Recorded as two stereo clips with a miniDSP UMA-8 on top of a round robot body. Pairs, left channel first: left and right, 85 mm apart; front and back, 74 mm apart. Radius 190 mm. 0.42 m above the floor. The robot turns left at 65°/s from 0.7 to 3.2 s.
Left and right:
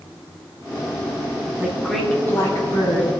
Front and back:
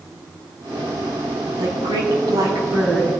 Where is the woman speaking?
160° right, 5.5 m; by 3.1 s 100° left, 5.5 m.